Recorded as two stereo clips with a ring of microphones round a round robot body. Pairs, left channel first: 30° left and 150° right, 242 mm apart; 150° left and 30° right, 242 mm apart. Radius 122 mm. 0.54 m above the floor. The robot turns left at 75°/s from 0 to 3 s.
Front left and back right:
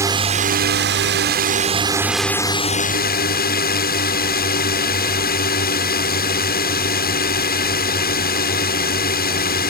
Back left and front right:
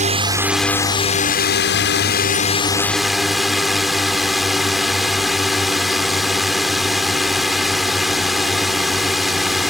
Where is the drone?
75° right; by 9.7 s 60° left.